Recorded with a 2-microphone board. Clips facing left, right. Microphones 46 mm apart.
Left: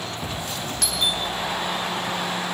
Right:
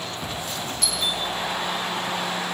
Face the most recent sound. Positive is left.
turn(degrees=65)  # may be behind; listen again after turning